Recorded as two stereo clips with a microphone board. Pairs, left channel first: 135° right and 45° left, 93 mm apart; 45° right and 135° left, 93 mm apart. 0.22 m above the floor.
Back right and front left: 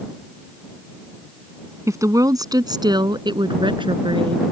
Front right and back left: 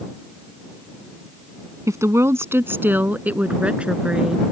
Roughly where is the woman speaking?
Left.